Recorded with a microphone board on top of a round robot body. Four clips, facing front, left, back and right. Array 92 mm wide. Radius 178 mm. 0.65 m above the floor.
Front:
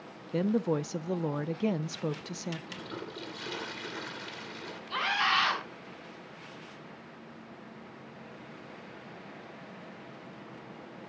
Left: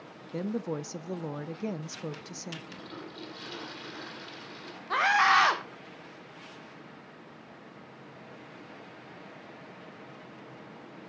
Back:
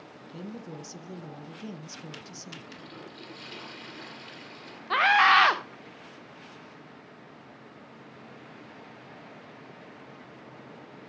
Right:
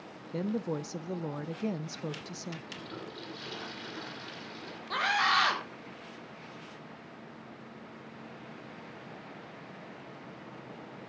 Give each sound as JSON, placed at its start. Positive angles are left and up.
{"t": 0.3, "sound": "a woman speaking", "azimuth_deg": 5, "distance_m": 0.7}
{"t": 2.7, "sound": "a toilet flushing", "azimuth_deg": 0, "distance_m": 2.5}
{"t": 4.9, "sound": "a scream", "azimuth_deg": 160, "distance_m": 2.5}